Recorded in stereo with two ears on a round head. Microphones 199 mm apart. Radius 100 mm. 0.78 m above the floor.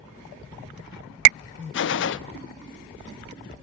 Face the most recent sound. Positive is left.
turn(degrees=55)  # may be behind; listen again after turning